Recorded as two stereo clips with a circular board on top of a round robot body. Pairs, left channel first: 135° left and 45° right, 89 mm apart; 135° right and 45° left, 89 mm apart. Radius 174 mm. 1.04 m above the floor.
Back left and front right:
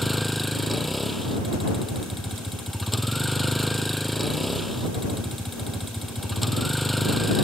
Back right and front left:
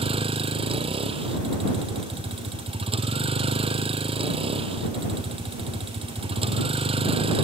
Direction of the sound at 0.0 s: 45° left.